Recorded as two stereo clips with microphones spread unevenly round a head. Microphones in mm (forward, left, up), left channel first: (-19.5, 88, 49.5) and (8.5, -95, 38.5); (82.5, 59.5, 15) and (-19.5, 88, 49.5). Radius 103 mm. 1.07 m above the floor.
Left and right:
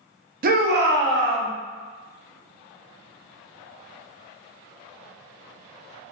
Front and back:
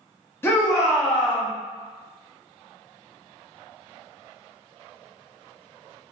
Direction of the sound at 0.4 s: 65° right.